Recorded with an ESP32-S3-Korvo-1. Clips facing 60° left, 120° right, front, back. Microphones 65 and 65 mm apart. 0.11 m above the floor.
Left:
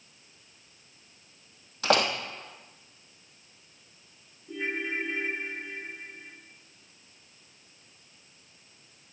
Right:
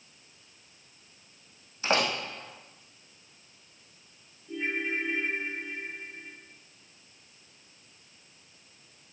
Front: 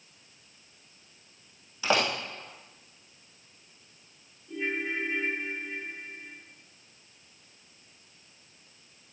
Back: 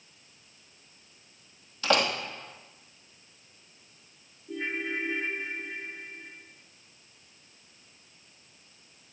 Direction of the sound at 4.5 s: 120° left.